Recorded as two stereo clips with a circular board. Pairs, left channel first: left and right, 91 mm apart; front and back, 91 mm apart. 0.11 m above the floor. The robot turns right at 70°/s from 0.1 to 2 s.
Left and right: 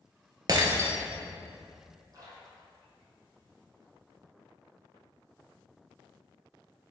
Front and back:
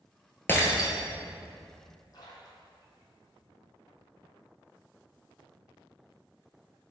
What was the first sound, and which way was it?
Breaking glass, 60° right.